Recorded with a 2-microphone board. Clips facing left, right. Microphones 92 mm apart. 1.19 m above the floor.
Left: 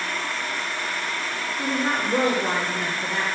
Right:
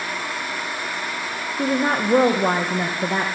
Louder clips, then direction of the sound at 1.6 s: Right 5 dB; 45° right (ahead or behind).